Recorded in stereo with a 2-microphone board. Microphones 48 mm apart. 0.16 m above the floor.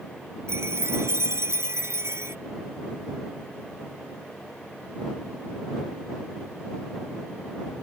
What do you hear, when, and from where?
0.5 s a chime: 60° right (ahead or behind)